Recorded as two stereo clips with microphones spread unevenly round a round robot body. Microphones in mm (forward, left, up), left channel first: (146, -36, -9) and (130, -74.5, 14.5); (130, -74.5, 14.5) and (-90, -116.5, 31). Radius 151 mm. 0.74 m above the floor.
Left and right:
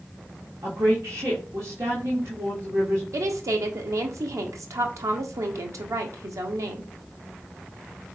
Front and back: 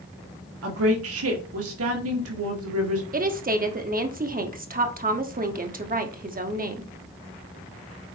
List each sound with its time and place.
0.6 s a woman speaking: 175° right, 2 m
3.1 s a woman speaking: 120° right, 1.4 m